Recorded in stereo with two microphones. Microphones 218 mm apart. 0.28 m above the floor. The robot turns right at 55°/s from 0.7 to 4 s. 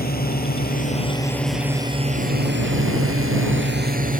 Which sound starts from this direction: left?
A drone, at 0.0 s.